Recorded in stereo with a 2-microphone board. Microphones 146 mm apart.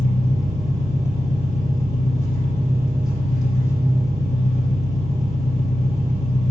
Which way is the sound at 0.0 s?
55° right (ahead or behind).